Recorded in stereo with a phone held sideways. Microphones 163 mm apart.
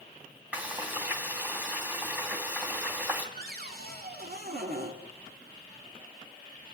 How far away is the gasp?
No gasp in this recording.